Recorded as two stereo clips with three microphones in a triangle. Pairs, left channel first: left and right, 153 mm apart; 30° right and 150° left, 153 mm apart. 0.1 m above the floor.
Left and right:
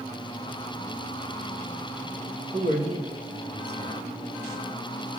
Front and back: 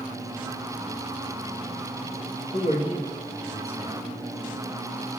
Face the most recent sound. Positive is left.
turn(degrees=-60)